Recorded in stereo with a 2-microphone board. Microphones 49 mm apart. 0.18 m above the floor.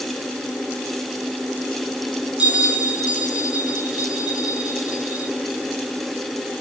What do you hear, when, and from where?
2.4 s a bell: 20° right (ahead or behind), 3 m